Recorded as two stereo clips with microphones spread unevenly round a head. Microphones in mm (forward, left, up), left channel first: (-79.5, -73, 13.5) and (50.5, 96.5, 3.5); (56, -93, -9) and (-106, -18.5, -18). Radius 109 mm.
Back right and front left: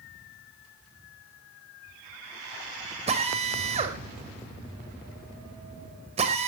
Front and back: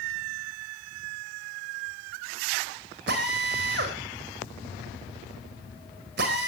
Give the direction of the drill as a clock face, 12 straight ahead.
8 o'clock.